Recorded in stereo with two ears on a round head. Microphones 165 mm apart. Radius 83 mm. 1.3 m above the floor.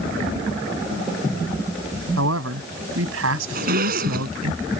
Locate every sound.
2.2 s a man speaking: 85° right
3.5 s a zipper: 50° right (ahead or behind)